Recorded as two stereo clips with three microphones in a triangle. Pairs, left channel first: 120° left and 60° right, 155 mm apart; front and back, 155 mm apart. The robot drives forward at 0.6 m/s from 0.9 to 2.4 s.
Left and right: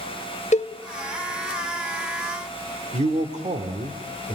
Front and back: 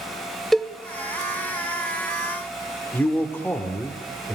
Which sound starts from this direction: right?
A man speaking, at 2.9 s.